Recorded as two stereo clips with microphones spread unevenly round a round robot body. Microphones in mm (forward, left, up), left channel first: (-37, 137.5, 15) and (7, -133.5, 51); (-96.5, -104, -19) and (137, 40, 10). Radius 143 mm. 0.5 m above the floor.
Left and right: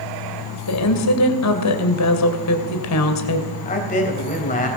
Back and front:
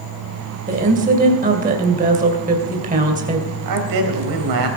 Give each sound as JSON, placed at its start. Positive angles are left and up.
{"t": 0.7, "sound": "a woman speaking", "azimuth_deg": 95, "distance_m": 2.5}
{"t": 3.6, "sound": "a man speaking", "azimuth_deg": 40, "distance_m": 3.5}